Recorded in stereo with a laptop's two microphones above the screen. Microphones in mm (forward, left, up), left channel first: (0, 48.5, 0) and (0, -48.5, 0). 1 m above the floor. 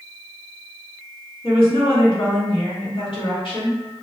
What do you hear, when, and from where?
1.4 s a woman speaking: 65° left (ahead or behind), 1.7 m